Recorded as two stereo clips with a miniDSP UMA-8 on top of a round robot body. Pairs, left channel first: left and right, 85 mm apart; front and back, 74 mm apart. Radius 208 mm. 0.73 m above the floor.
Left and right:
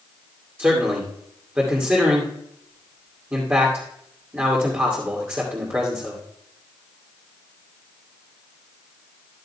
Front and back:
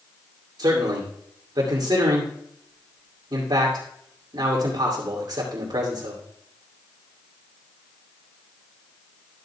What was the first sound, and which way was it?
A man speaking, 155° right.